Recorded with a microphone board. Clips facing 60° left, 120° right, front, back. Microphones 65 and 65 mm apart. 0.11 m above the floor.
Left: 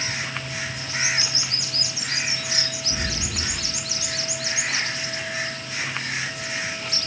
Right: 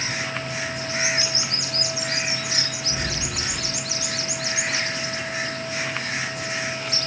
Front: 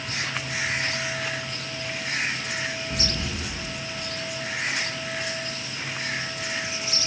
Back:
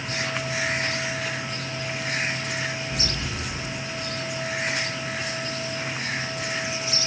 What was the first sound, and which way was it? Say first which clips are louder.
An explosion: even, even; 20° right.